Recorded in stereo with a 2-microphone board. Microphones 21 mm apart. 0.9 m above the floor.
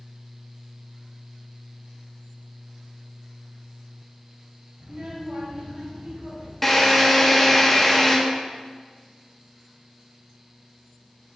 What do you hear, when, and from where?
4.8 s a child speaking: 50° right (ahead or behind), 2.5 m; by 6.5 s 70° right (ahead or behind), 3.5 m
6.6 s a drill: 5° left (ahead or behind), 0.9 m